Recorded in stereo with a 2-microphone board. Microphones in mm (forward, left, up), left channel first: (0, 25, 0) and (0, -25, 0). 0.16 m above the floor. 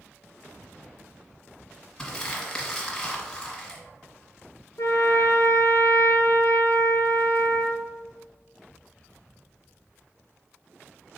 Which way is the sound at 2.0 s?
10° left (ahead or behind).